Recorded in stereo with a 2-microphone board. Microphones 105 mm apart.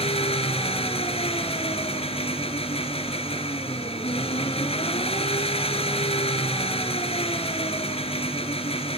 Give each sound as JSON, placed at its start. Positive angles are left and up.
{"t": 0.0, "sound": "an engine running", "side_deg": 75, "distance_m": 2.5}